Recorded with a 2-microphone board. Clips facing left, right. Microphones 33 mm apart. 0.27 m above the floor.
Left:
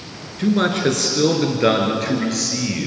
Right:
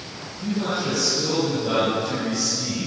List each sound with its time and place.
0.4 s a man speaking: 70° left (ahead or behind), 4 m; by 2.9 s 75° left (ahead or behind), 5.5 m